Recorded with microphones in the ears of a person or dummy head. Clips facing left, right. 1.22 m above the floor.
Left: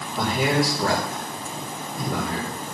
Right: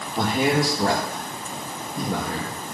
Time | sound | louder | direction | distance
0.2 | a man speaking | right 1 dB | 30° right (ahead or behind) | 2.5 m